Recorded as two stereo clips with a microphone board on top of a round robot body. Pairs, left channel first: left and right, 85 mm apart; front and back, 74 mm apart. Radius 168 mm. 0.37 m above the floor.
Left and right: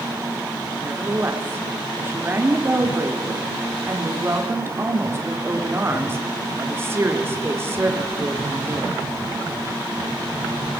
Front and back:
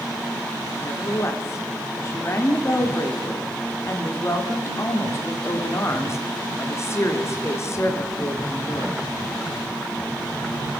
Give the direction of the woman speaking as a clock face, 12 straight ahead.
1 o'clock.